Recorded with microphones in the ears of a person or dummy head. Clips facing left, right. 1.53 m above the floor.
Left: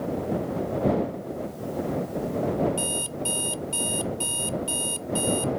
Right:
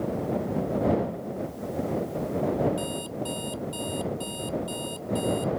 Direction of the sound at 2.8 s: 40° left (ahead or behind).